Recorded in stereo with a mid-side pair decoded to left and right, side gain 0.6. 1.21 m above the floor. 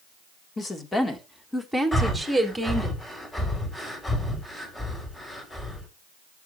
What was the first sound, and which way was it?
A woman speaking, 30° left.